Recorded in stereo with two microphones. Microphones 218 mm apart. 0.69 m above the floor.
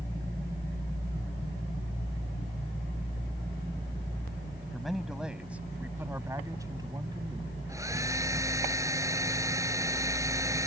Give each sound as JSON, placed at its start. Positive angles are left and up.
{"t": 4.7, "sound": "a man speaking", "side_deg": 0}
{"t": 7.7, "sound": "a hair dryer", "side_deg": -15}